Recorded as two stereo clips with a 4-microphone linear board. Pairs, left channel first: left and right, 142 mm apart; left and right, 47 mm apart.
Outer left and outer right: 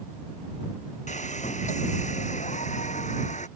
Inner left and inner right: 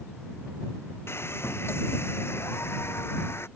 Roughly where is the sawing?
Left.